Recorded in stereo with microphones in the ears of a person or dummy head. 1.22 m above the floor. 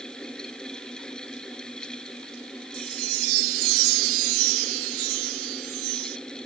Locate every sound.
0.0 s a fan: 5° left (ahead or behind)
2.7 s a chime: 75° right (ahead or behind)